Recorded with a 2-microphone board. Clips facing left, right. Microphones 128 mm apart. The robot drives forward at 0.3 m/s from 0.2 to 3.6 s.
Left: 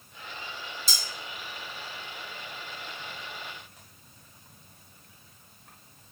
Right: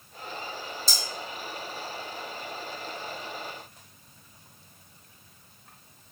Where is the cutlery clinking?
5° left (ahead or behind), 1.9 m.